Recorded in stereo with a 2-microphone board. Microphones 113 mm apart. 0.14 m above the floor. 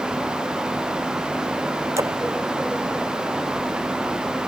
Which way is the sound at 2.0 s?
25° right (ahead or behind).